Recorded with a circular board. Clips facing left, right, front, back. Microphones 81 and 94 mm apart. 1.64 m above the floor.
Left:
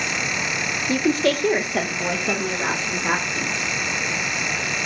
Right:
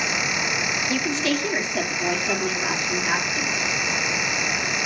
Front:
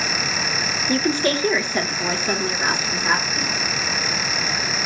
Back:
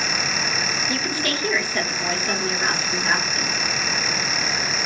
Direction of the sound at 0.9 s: 50° left.